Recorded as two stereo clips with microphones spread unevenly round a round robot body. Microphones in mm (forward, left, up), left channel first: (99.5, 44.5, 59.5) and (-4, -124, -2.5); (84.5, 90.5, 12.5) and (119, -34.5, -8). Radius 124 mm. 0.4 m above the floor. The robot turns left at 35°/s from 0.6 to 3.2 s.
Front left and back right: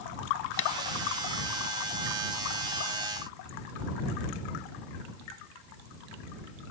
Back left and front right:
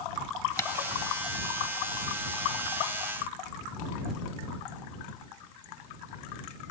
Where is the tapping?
35° left.